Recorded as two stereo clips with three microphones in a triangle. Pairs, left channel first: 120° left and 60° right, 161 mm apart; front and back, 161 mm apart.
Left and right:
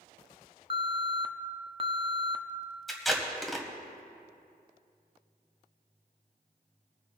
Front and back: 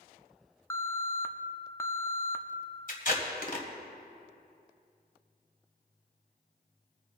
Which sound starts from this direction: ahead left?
Tape being pulled, at 2.9 s.